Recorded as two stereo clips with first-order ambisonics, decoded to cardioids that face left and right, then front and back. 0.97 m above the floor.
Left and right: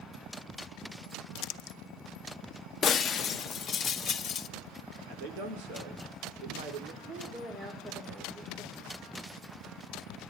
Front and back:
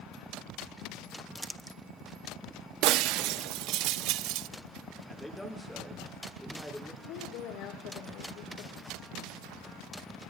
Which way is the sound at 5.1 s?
85° right.